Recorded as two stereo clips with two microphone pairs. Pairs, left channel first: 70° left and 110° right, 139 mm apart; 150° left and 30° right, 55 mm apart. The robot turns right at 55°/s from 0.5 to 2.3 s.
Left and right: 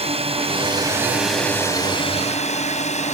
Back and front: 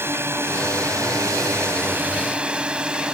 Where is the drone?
70° right; by 3.1 s 40° left.